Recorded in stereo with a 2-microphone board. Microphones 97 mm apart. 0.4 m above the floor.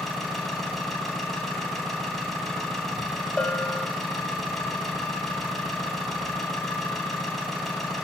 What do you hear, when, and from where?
0.0 s an engine running: 5° left (ahead or behind), 2.5 m
3.4 s a bell: 10° left (ahead or behind), 1.5 m